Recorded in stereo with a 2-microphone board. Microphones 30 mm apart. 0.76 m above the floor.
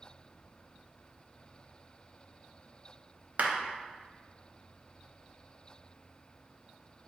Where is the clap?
55° right (ahead or behind), 0.7 m.